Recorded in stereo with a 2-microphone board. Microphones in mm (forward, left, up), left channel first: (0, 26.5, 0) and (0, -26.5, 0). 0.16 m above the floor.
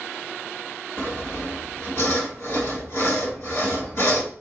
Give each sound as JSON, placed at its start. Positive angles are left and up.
{"t": 1.0, "sound": "sawing", "side_deg": 55, "distance_m": 1.4}